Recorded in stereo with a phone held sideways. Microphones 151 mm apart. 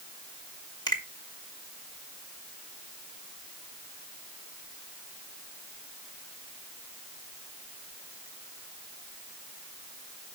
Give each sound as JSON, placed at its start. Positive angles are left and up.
{"t": 0.9, "sound": "a finger snap", "side_deg": 30, "distance_m": 2.0}